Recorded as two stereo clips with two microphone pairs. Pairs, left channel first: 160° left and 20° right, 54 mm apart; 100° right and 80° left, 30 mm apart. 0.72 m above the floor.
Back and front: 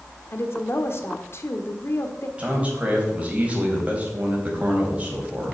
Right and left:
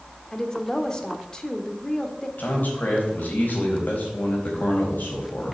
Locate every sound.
0.3 s a woman speaking: 165° right, 1.5 m
2.4 s a man speaking: 85° right, 4 m